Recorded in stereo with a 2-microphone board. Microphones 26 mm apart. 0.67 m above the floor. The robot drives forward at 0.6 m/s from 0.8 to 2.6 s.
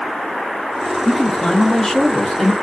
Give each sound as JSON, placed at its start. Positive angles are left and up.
{"t": 1.1, "sound": "a man speaking", "side_deg": 15, "distance_m": 1.1}